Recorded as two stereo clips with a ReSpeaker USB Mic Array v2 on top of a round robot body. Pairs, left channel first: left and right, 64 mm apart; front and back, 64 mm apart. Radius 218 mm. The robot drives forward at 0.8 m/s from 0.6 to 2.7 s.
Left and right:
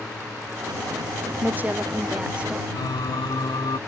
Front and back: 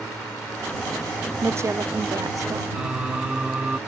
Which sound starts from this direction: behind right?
A woman speaking, at 1.4 s.